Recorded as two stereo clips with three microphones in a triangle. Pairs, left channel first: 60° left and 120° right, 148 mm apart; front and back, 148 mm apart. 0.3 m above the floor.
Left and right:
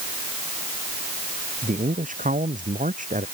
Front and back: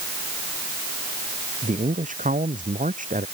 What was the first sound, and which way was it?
A man speaking, 150° right.